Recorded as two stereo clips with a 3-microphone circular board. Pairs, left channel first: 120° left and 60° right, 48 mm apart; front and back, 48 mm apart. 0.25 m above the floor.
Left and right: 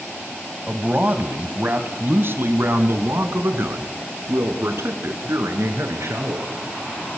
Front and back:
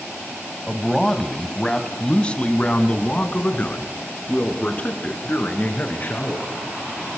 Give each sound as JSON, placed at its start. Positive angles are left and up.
{"t": 0.7, "sound": "a man speaking", "azimuth_deg": -85, "distance_m": 1.6}